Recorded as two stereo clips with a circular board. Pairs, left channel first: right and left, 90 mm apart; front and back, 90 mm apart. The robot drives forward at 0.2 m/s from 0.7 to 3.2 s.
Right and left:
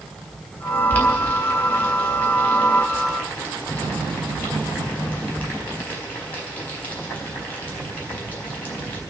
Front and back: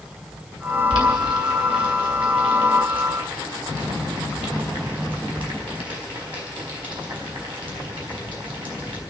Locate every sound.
0.9 s boiling: 155° right, 3.5 m